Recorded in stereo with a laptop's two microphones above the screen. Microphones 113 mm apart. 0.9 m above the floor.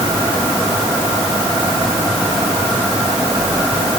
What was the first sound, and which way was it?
Only background noise.